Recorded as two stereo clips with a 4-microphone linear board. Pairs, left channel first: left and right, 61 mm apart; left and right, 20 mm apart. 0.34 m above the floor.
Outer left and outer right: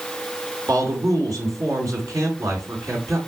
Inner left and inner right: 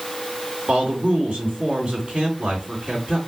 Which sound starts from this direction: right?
A man speaking, at 0.7 s.